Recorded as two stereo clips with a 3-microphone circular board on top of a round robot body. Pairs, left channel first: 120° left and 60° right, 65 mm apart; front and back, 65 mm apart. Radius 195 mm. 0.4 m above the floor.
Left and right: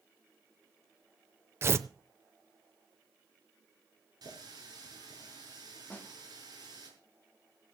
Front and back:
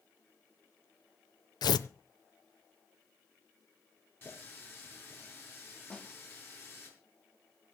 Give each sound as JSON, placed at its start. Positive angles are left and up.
{"t": 1.6, "sound": "tearing paper", "azimuth_deg": -10, "distance_m": 0.6}
{"t": 4.2, "sound": "a running tap", "azimuth_deg": -55, "distance_m": 5.5}
{"t": 5.9, "sound": "a snare drum", "azimuth_deg": 65, "distance_m": 1.6}